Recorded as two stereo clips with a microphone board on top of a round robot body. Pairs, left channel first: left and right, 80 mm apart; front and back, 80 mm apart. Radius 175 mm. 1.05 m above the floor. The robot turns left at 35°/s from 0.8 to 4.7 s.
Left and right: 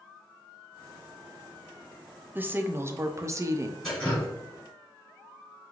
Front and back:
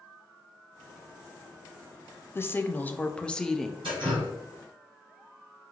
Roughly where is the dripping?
Behind.